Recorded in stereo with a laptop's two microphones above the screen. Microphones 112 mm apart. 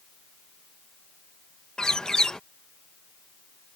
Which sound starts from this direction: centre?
A bird, at 1.8 s.